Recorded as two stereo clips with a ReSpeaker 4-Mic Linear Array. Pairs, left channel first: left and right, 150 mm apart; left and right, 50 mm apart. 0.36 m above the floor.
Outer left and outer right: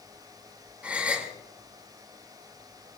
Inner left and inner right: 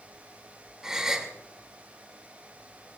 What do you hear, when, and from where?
0.8 s a gasp: 10° right (ahead or behind), 3 m